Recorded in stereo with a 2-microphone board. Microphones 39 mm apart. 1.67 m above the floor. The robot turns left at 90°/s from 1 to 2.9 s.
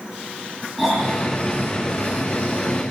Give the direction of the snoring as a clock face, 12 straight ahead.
6 o'clock.